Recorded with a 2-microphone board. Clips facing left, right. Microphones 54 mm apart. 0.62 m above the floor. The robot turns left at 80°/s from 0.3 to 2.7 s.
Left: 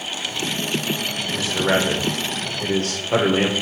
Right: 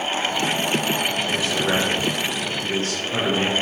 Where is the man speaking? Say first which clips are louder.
Left 5 dB; 170° right, 1.8 m; by 3.5 s 80° left, 1.8 m.